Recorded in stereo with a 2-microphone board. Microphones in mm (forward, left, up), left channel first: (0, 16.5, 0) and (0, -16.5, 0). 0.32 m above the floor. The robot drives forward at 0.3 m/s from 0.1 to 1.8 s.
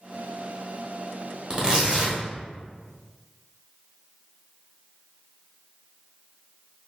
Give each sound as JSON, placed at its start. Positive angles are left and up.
{"t": 1.5, "sound": "tearing paper", "side_deg": -25, "distance_m": 1.0}